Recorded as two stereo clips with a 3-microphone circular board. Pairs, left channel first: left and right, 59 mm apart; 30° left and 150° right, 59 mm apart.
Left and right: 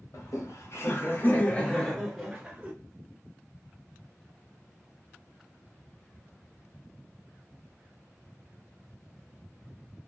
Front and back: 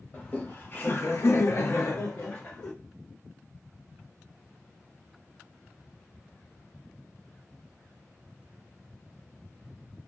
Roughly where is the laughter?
Left.